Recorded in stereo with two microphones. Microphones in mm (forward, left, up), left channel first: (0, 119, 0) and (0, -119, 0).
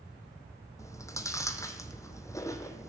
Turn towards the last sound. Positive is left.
turn(degrees=15)  # may be behind; listen again after turning